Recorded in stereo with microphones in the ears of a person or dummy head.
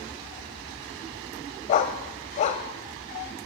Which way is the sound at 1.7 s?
40° left (ahead or behind).